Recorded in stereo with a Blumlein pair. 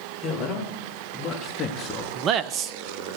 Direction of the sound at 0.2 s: 20° left.